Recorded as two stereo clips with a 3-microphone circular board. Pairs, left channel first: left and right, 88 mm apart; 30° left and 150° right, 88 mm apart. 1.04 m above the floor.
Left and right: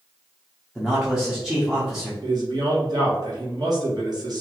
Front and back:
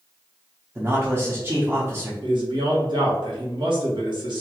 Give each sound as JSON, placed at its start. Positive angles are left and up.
{"t": 0.8, "sound": "a man speaking", "azimuth_deg": -175, "distance_m": 0.8}
{"t": 2.2, "sound": "a man speaking", "azimuth_deg": -125, "distance_m": 1.2}